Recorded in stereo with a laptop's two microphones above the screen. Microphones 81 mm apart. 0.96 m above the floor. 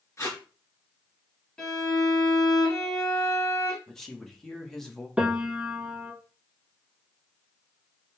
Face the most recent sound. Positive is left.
turn(degrees=-15)  # may be behind; listen again after turning